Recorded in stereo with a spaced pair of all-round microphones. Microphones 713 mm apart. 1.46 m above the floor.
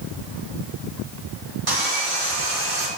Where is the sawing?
30° right (ahead or behind), 2 m.